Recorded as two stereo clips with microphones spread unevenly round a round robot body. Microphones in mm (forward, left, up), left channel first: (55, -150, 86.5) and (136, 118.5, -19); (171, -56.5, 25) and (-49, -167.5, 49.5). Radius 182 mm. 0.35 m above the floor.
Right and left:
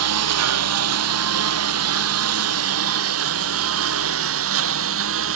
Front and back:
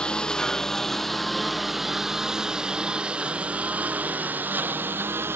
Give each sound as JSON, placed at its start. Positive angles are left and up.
{"t": 0.0, "sound": "a lawn mower", "azimuth_deg": 115}